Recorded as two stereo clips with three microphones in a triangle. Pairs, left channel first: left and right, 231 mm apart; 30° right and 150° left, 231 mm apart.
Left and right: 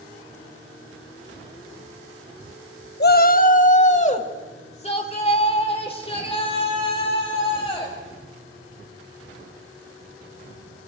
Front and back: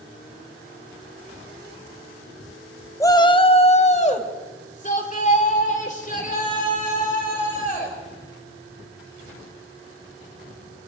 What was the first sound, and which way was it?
A shout, 45° left.